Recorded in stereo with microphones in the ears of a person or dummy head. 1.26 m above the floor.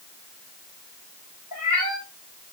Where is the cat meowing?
10° right (ahead or behind), 1.6 m.